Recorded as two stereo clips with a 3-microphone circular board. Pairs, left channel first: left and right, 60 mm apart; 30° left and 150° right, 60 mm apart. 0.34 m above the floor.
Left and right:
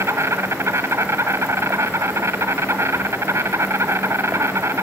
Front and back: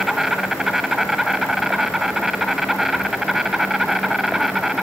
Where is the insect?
65° right, 1.8 m.